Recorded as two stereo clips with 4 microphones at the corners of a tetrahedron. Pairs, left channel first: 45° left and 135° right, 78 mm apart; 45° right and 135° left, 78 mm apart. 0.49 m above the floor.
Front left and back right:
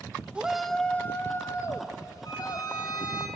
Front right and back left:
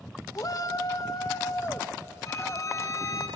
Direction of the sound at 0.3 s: 65° right.